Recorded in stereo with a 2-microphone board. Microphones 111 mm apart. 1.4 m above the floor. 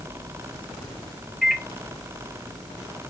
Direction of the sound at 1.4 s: Centre (ahead or behind).